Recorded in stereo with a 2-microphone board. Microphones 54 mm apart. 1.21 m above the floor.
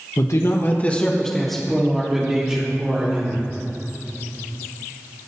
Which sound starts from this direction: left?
A man speaking, at 0.2 s.